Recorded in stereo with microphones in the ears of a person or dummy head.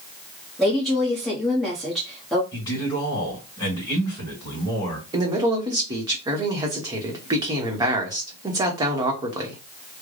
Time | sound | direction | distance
0.6 | a woman speaking | centre (ahead or behind) | 0.9 m
2.5 | a man speaking | 15° left (ahead or behind) | 2.0 m
5.1 | a man speaking | 20° right (ahead or behind) | 1.0 m